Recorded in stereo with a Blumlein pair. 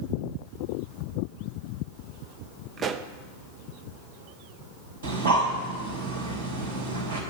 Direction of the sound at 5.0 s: 65° right.